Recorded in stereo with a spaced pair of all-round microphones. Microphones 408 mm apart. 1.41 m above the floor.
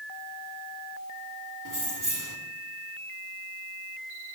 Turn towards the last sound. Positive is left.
turn(degrees=-50)  # may be behind; listen again after turning